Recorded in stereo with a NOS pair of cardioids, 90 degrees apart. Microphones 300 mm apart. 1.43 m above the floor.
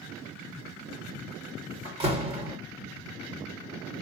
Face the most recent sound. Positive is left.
turn(degrees=-20)